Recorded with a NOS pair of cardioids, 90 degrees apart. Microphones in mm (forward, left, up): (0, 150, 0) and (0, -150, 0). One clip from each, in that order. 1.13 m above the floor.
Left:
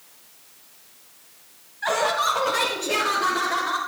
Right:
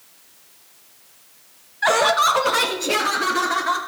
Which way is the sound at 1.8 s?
35° right.